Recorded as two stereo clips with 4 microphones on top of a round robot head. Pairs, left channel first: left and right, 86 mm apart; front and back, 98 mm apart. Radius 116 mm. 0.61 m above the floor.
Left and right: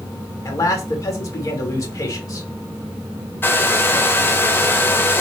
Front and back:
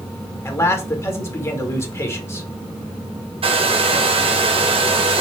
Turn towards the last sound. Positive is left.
turn(degrees=155)